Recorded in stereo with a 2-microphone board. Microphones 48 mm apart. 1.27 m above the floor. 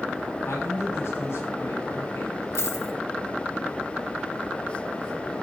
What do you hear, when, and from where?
0.5 s a man speaking: 55° left (ahead or behind), 9.5 m; by 2.5 s 60° left (ahead or behind), 9 m
2.5 s a dropped coin: 75° left (ahead or behind), 2.5 m